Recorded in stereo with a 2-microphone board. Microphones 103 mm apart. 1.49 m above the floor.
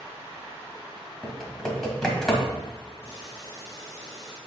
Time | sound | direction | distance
1.2 | typing on a keyboard | 5° left (ahead or behind) | 1.8 m
3.0 | boiling | 30° left (ahead or behind) | 3 m